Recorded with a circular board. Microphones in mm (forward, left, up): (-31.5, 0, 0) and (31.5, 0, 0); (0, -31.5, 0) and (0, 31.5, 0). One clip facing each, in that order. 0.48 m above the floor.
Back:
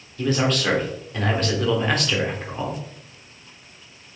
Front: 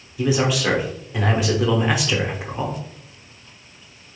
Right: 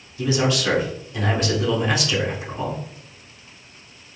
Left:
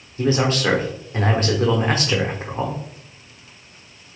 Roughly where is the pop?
I don't hear a pop.